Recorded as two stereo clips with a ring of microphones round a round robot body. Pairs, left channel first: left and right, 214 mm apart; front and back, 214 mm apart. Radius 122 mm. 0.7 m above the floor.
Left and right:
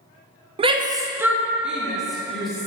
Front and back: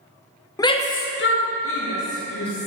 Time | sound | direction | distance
0.6 | a shout | 60° right | 0.6 m